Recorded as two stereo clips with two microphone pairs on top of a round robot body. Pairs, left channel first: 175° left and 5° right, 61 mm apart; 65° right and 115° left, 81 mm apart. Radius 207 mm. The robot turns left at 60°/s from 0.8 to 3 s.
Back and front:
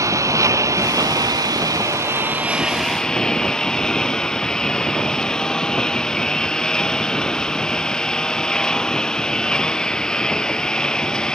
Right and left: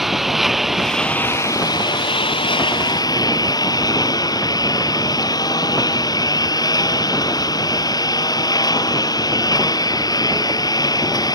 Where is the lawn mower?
25° left; by 11.4 s 105° right.